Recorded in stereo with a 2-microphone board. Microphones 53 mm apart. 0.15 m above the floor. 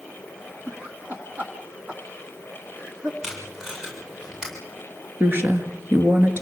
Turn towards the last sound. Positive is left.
turn(degrees=-40)  # may be behind; listen again after turning